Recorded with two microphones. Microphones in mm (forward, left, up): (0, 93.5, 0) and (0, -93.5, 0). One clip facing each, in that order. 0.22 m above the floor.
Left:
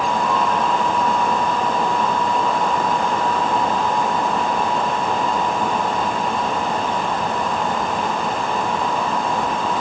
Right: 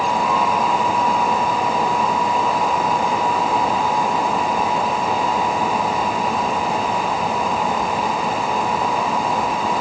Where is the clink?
No clink in this recording.